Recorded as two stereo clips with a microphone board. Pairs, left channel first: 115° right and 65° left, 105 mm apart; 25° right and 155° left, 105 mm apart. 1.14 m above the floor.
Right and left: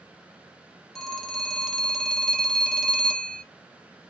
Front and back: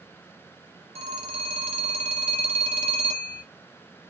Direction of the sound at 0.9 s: 160° left.